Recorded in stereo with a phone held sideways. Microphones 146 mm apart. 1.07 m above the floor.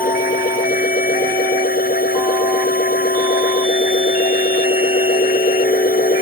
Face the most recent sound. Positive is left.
turn(degrees=80)